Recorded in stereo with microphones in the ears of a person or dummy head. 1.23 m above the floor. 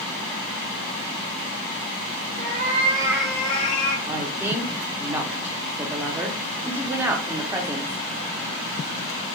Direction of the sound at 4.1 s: 15° right (ahead or behind).